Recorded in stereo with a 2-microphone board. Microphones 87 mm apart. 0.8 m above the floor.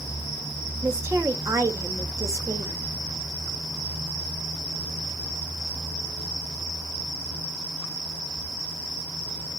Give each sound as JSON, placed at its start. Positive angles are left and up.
{"t": 0.8, "sound": "a woman speaking", "side_deg": -35, "distance_m": 1.5}